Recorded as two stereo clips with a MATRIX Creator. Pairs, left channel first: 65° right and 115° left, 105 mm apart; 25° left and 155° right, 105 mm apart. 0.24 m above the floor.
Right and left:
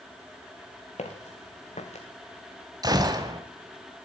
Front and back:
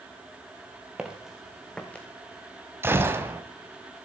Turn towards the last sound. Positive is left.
turn(degrees=145)